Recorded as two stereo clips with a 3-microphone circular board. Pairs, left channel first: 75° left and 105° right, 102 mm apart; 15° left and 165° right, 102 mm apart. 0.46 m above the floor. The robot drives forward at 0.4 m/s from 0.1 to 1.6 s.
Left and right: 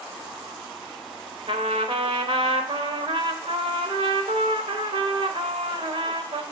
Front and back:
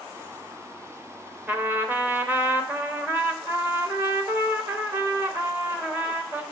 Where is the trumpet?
95° right, 0.6 m; by 6.4 s 100° right, 0.6 m.